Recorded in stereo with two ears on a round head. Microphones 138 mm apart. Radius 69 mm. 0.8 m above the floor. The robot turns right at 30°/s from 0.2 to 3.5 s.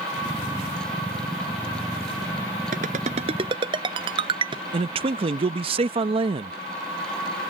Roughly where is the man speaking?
Right.